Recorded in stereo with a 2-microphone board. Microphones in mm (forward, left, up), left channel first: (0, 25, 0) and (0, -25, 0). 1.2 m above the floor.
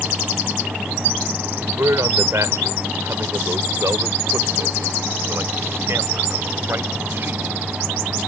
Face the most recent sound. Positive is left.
turn(degrees=-50)  # may be behind; listen again after turning